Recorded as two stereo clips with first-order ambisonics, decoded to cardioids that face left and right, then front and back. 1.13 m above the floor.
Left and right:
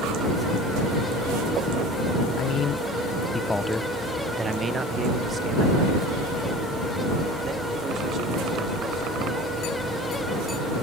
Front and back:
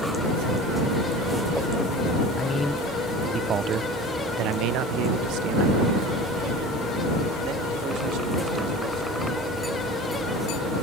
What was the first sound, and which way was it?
A man speaking, 70° left.